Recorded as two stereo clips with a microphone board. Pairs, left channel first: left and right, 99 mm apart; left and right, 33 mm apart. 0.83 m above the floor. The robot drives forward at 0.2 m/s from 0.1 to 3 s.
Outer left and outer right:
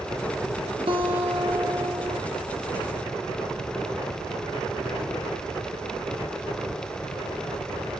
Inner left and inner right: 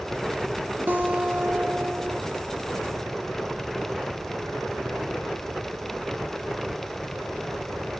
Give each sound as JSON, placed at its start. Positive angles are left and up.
{"t": 0.9, "sound": "a guitar", "side_deg": -65, "distance_m": 3.0}